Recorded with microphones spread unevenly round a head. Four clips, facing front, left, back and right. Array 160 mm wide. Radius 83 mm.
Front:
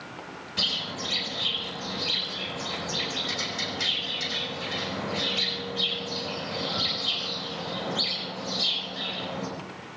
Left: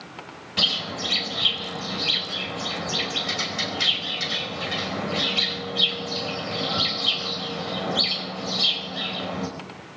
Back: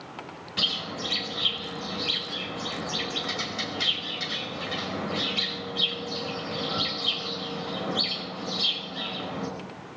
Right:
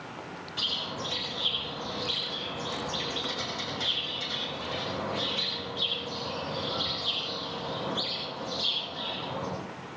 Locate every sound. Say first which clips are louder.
0.6 s a bird: left 7 dB, back 1 dB; 95° left, 5 m